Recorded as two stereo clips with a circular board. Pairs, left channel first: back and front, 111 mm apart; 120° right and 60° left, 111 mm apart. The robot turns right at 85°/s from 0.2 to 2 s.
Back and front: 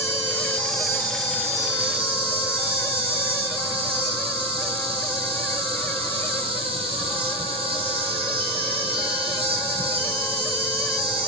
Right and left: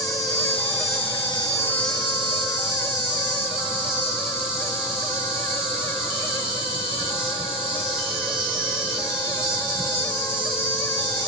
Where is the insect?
175° right, 1.3 m; by 11.3 s 20° right, 1.3 m.